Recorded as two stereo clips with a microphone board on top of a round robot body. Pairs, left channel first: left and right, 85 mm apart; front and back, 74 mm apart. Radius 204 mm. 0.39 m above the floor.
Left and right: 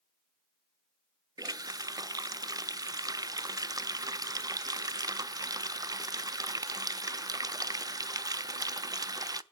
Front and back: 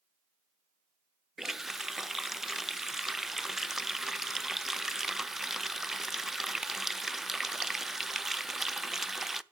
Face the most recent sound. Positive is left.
turn(degrees=-95)